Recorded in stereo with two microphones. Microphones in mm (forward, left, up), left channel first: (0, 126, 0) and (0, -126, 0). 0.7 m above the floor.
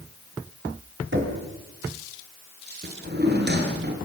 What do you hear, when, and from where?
1.1 s knocking: 50° right (ahead or behind), 4 m
2.8 s a drawer: 40° right (ahead or behind), 4 m